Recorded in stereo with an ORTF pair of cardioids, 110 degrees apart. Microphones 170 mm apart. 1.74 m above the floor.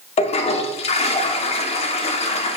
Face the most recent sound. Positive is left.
turn(degrees=35)